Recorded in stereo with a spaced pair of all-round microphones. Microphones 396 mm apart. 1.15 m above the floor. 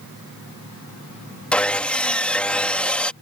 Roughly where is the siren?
I don't hear a siren.